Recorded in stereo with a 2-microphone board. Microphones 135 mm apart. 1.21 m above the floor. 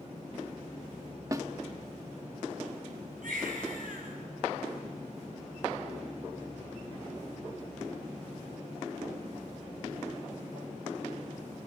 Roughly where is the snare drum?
Right.